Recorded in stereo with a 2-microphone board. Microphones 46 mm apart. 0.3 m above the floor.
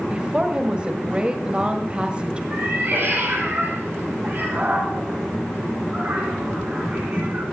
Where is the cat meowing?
55° right (ahead or behind), 6.5 m.